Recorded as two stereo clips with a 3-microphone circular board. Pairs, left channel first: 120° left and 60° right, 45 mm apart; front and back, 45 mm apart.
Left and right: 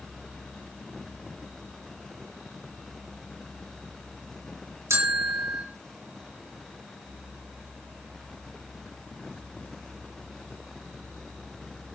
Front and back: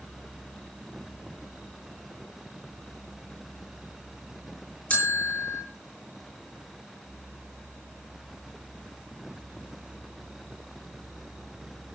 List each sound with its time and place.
4.9 s a bell: 55° right, 6 m